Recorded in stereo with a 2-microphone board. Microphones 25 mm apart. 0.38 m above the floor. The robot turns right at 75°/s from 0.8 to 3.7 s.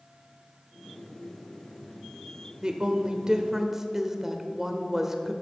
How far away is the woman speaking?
About 1.1 m.